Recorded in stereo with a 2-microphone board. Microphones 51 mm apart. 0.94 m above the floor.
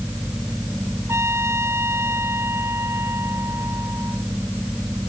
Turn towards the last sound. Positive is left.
turn(degrees=-55)  # may be behind; listen again after turning